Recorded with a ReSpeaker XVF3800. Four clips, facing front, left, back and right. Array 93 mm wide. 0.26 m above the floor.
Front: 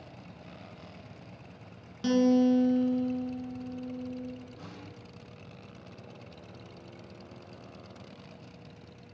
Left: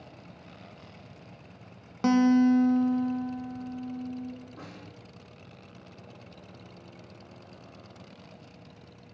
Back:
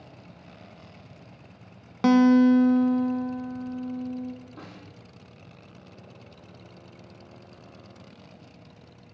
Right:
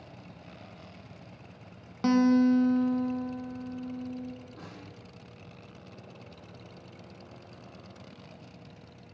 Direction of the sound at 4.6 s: 170° left.